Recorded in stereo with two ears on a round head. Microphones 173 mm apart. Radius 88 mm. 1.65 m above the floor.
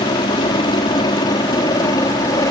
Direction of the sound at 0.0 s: 25° left (ahead or behind).